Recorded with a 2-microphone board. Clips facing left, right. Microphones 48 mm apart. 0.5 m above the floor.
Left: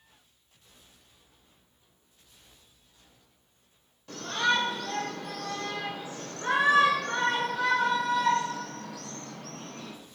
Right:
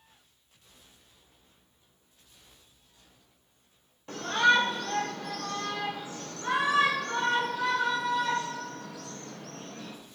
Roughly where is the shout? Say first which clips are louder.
Right 4 dB; centre.